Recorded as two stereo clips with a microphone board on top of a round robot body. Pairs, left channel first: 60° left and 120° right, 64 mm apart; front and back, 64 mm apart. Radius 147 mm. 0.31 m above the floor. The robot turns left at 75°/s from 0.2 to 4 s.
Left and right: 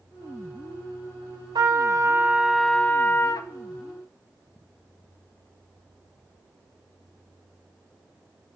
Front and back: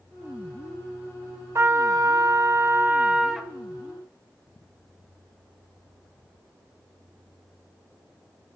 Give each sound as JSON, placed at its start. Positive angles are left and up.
{"t": 1.6, "sound": "a trumpet", "azimuth_deg": -130, "distance_m": 0.7}